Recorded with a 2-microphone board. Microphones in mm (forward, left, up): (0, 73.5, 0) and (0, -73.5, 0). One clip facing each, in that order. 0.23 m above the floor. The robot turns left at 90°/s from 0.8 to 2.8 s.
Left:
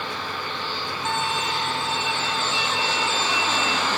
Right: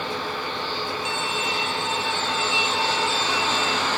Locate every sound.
1.1 s a violin: 115° left; by 3.9 s 40° right